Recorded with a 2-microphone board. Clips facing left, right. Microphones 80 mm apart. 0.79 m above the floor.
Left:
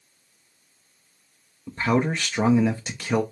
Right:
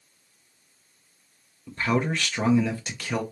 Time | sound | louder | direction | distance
1.7 | a man speaking | left 3 dB | 20° left (ahead or behind) | 0.5 m